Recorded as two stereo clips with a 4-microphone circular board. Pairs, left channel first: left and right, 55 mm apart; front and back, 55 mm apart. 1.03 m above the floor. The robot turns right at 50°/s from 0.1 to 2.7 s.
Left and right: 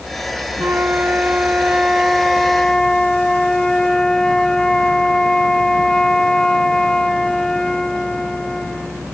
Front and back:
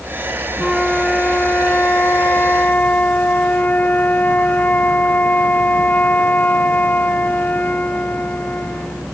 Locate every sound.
0.6 s a flute: 85° right; by 9.1 s 20° left